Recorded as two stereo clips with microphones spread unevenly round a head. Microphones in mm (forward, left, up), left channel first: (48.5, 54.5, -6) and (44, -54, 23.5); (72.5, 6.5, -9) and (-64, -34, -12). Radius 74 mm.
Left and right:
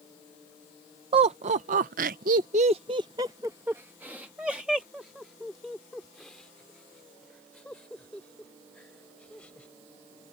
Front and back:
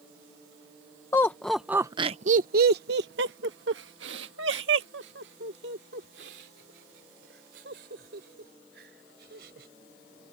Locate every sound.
1.1 s laughter: 55° right; by 9.7 s 170° left